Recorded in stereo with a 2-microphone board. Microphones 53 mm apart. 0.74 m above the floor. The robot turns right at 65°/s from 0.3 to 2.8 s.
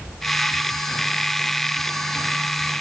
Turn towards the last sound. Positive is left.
No sound to turn to.